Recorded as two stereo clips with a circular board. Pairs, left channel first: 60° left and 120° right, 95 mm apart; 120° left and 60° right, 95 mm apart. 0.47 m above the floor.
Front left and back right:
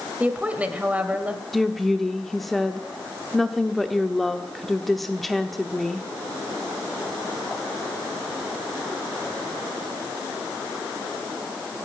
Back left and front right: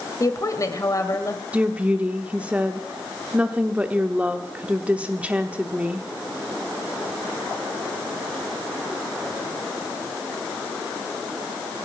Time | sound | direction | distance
0.2 | a woman speaking | 165° left | 1.9 m
1.5 | a woman speaking | 25° right | 0.9 m